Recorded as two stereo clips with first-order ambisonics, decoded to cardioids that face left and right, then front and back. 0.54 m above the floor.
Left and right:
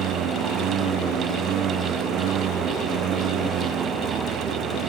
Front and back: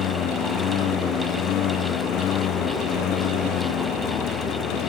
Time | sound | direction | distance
0.0 | a lawn mower | 45° right | ?